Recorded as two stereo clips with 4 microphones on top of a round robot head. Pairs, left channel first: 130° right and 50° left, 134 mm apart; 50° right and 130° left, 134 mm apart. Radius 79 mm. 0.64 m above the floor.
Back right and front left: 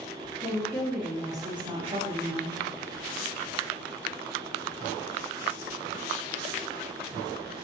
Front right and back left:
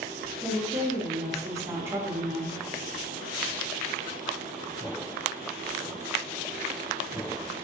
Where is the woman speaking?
Straight behind, 0.7 m; by 2.6 s 55° left, 1.1 m.